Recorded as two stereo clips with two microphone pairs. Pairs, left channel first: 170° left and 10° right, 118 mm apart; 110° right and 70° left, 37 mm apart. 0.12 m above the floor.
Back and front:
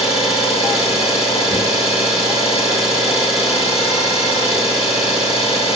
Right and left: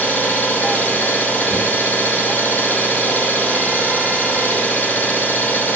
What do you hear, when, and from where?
0.0 s an engine running: 160° right, 2.5 m